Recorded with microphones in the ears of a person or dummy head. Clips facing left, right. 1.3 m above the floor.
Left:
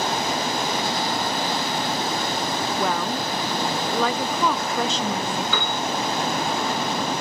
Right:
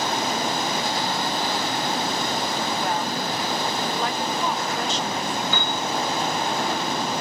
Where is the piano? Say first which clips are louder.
Left 1 dB; 75° left (ahead or behind), 4.5 m.